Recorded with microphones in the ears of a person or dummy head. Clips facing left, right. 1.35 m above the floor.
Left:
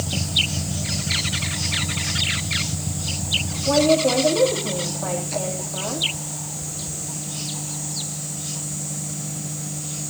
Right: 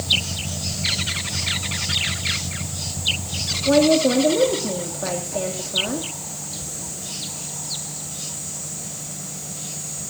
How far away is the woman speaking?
About 2.5 m.